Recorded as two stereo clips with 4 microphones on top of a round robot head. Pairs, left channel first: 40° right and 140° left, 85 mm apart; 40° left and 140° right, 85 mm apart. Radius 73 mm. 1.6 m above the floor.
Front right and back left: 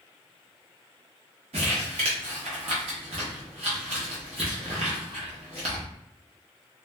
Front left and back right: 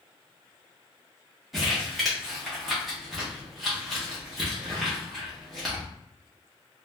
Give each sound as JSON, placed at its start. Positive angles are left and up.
{"t": 1.5, "sound": "crumpling", "azimuth_deg": 135, "distance_m": 0.7}